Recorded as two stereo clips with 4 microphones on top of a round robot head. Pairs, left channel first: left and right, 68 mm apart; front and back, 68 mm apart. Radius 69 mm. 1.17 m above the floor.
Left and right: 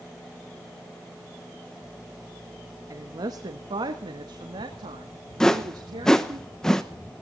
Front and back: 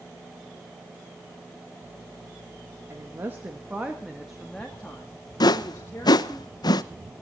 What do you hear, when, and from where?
2.9 s a woman speaking: 125° right, 1.5 m; by 6.4 s 65° right, 3 m
5.4 s a whoosh: 5° left, 1.0 m